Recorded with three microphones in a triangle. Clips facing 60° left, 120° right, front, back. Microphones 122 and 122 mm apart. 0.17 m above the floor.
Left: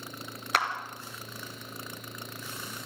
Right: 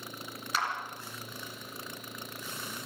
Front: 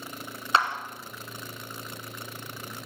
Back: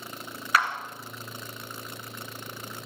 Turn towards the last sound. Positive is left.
turn(degrees=60)